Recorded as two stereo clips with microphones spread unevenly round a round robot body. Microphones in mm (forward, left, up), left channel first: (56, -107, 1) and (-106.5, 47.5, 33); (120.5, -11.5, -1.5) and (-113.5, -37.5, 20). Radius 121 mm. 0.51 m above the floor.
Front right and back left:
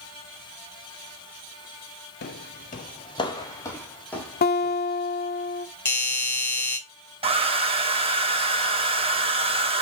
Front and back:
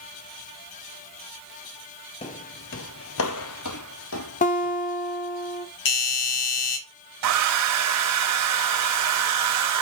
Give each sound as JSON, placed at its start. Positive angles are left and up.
{"t": 2.2, "sound": "footsteps", "azimuth_deg": -50, "distance_m": 0.5}
{"t": 4.4, "sound": "a guitar", "azimuth_deg": -30, "distance_m": 1.1}
{"t": 5.8, "sound": "a doorbell", "azimuth_deg": 30, "distance_m": 2.0}
{"t": 7.2, "sound": "a hair dryer", "azimuth_deg": -155, "distance_m": 1.1}